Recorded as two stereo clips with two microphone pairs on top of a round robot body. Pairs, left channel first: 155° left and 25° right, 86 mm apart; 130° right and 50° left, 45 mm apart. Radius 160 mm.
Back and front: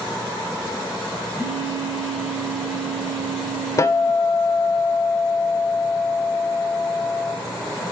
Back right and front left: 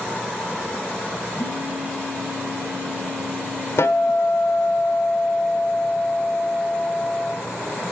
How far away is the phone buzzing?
About 4 m.